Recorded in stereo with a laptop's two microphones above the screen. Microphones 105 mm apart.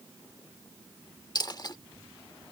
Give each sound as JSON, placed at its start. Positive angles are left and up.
{"t": 1.4, "sound": "a dropped coin", "side_deg": 40}